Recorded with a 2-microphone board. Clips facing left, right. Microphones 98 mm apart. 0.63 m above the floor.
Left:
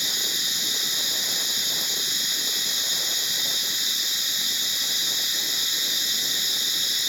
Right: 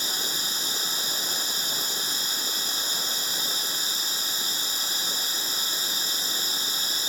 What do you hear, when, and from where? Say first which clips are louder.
0.0 s running water: right 1 dB; 40° right (ahead or behind)